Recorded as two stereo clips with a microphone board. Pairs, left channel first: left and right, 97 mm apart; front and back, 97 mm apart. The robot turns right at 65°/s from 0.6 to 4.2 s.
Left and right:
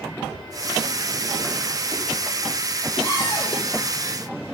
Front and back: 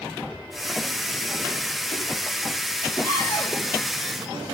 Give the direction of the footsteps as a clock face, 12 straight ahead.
3 o'clock.